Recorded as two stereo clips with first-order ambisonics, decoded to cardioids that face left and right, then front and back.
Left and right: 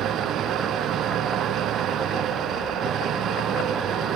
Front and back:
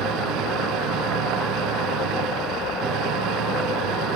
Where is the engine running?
145° right.